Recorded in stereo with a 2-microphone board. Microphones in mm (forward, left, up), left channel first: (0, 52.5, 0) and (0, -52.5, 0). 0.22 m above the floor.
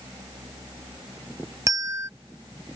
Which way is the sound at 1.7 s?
30° right (ahead or behind).